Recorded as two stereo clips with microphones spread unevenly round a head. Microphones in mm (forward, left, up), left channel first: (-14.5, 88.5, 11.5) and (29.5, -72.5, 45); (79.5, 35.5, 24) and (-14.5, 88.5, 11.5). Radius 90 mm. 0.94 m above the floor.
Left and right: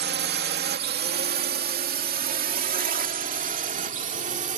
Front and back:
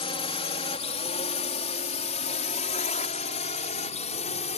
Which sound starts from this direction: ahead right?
A drone, at 0.0 s.